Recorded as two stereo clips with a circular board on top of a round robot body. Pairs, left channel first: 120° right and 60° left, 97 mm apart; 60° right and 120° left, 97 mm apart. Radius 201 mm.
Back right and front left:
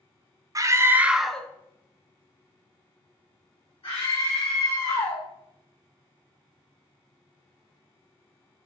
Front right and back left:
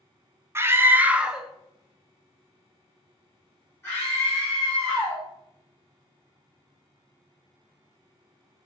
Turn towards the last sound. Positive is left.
turn(degrees=-120)